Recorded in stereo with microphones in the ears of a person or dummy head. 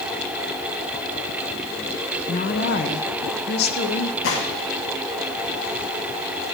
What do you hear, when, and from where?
2.3 s a woman speaking: 35° left (ahead or behind), 0.7 m; by 4.1 s 50° left (ahead or behind), 1.8 m
4.2 s a gunshot: 65° left (ahead or behind), 2 m